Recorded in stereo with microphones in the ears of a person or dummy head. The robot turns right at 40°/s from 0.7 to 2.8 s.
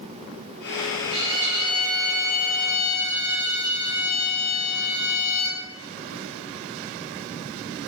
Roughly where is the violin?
Right.